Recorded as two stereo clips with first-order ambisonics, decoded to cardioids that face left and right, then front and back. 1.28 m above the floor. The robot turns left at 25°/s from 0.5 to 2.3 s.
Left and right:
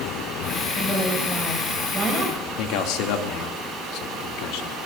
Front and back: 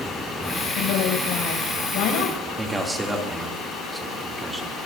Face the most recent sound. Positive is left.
turn(degrees=95)